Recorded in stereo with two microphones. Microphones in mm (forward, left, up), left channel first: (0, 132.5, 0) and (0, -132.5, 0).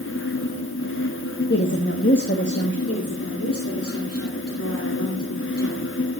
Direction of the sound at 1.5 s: 45° left (ahead or behind).